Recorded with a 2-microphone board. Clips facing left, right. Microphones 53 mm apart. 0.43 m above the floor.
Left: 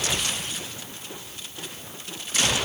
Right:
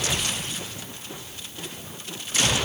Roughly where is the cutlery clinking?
I don't hear cutlery clinking.